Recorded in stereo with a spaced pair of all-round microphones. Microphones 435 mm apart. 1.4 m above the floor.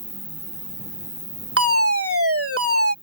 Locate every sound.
0.0 s an insect: 25° right (ahead or behind)
1.6 s a fire alarm: 35° right (ahead or behind)